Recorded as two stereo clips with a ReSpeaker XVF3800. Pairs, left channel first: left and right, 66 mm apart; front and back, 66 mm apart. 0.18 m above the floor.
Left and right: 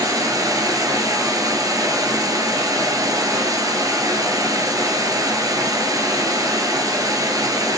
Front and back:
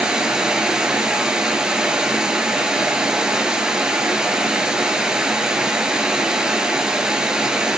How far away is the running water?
About 1.4 m.